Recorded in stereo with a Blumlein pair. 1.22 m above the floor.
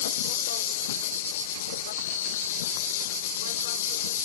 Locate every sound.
0.0 s an insect: 60° left